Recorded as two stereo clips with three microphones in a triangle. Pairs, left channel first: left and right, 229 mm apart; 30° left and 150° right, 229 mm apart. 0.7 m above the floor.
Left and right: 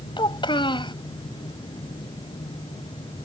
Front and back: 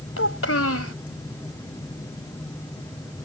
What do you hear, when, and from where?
0.2 s a child speaking: 20° left